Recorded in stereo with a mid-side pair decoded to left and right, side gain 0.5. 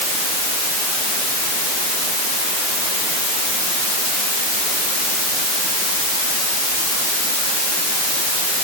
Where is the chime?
I don't hear a chime.